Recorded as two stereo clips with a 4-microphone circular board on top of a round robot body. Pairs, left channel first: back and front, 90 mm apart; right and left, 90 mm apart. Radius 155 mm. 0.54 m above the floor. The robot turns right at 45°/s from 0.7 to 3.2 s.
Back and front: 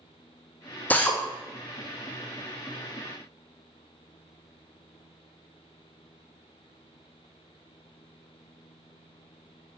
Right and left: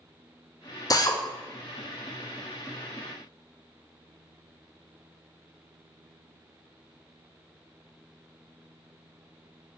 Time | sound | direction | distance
0.9 | a drill | 115° right | 1.0 m